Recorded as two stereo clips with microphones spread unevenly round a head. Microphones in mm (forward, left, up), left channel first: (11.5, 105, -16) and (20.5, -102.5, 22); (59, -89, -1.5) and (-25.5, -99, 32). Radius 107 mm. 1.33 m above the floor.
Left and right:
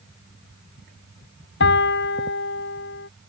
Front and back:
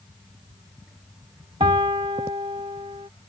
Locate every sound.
1.6 s a piano: 135° left